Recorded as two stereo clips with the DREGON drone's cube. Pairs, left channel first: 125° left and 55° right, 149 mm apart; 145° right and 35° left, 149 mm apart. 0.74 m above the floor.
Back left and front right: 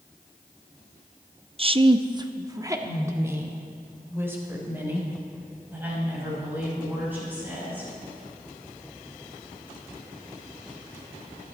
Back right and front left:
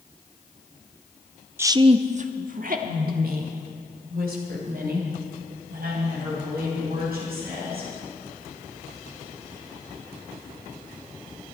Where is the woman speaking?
35° right, 0.5 m; by 7.9 s 25° left, 6 m.